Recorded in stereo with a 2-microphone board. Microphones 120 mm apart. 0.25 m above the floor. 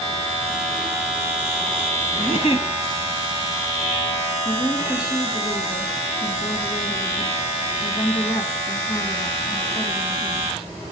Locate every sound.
2.2 s a giggle: 55° left (ahead or behind), 1.1 m
4.5 s a woman speaking: 40° left (ahead or behind), 2 m